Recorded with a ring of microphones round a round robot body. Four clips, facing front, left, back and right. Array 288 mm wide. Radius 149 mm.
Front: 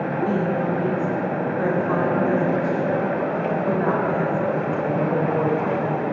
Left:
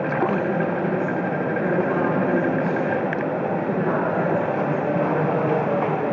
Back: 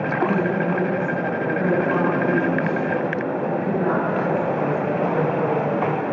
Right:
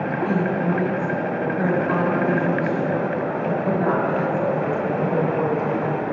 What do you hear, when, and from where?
0.2 s a woman speaking: 20° right, 4 m